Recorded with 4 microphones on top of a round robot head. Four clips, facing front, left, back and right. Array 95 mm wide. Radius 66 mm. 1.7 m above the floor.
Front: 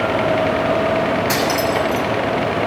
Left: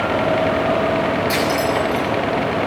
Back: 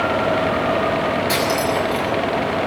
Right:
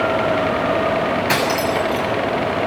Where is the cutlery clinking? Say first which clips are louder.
Even, front 1 dB; 75° right, 7 m.